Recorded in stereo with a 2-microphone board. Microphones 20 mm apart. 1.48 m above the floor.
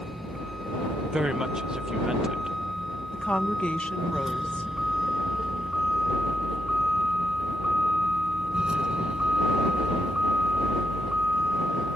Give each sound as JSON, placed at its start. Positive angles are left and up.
{"t": 0.0, "sound": "a vehicle", "side_deg": 5}
{"t": 1.1, "sound": "a woman speaking", "side_deg": -35}
{"t": 3.1, "sound": "a woman speaking", "side_deg": 85}